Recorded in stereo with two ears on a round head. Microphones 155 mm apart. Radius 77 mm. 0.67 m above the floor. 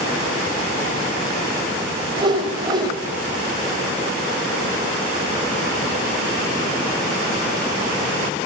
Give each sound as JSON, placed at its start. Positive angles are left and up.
{"t": 2.2, "sound": "a whoosh", "side_deg": -25, "distance_m": 4.0}